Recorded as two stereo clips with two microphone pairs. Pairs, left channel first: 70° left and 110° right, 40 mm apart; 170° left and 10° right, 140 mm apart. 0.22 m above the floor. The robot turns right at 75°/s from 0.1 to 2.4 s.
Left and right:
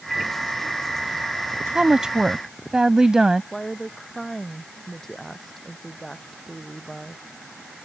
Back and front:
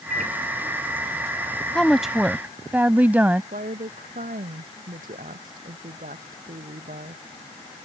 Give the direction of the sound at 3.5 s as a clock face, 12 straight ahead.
12 o'clock.